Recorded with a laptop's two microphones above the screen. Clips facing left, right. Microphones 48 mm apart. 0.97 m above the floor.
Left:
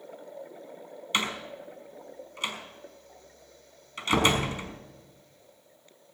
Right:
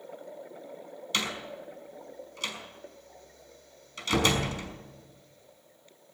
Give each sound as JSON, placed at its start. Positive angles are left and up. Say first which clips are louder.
{"t": 1.1, "sound": "a door slam", "louder": "left 2 dB", "side_deg": 25, "distance_m": 5.0}